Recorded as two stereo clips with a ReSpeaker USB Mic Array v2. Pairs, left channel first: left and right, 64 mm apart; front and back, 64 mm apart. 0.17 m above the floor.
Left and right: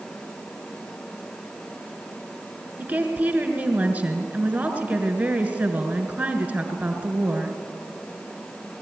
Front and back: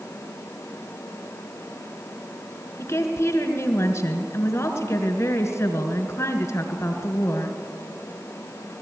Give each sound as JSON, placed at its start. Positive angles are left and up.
{"t": 2.8, "sound": "a woman speaking", "azimuth_deg": -35, "distance_m": 2.0}